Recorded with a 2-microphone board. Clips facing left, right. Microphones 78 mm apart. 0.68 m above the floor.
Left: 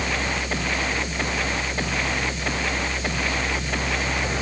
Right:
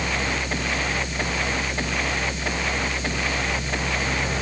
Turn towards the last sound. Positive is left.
No sound to turn to.